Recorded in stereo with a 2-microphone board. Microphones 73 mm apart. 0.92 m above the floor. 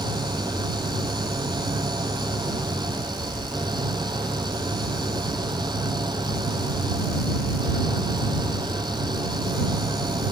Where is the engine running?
80° right.